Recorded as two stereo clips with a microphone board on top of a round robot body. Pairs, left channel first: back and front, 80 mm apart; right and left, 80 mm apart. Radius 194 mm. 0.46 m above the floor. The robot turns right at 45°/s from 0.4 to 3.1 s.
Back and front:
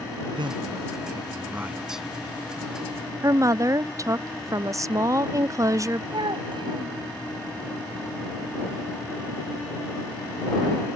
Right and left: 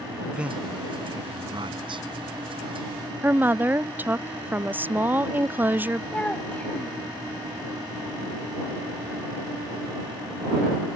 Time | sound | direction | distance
0.3 | a man speaking | 15° left | ?
3.2 | a woman speaking | 30° left | ?
6.1 | a child speaking | 15° right | ?